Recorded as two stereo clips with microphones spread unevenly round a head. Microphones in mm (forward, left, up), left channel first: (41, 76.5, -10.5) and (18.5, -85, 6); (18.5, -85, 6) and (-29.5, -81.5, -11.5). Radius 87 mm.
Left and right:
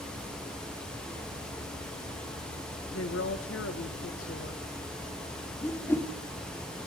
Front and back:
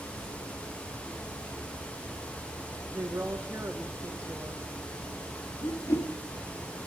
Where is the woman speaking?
100° left, 1.9 m.